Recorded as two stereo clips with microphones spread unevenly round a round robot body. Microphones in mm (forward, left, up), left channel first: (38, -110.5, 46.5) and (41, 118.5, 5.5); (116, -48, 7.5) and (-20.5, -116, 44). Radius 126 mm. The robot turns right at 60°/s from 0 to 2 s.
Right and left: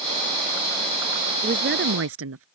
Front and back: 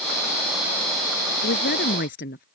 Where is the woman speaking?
30° left; by 2.5 s 65° left.